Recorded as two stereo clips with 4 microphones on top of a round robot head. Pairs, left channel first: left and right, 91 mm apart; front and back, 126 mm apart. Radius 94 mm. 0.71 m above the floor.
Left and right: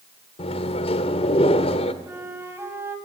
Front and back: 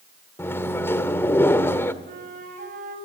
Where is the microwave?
70° left, 1.5 m.